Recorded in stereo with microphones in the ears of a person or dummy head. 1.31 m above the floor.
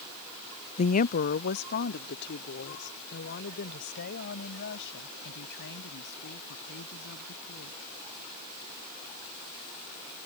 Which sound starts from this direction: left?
A woman speaking, at 0.8 s.